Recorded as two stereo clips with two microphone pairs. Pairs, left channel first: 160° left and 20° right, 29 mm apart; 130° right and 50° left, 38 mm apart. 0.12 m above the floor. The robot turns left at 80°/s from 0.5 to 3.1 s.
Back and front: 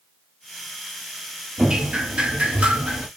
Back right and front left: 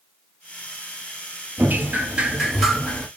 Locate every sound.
1.6 s dripping: 45° left, 1.2 m; by 3.1 s 75° right, 1.2 m